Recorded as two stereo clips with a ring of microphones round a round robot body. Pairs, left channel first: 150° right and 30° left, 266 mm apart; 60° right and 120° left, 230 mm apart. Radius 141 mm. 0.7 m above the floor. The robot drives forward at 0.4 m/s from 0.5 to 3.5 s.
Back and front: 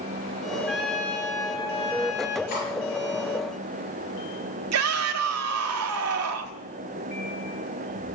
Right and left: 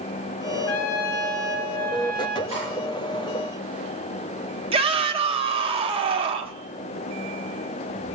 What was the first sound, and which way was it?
A trumpet, 60° right.